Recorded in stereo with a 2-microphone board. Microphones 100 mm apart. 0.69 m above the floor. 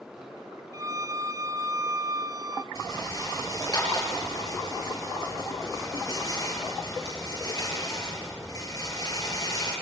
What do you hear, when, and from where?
0.7 s a violin: 35° right (ahead or behind), 1.0 m
2.8 s a rattle: 35° left (ahead or behind), 9.5 m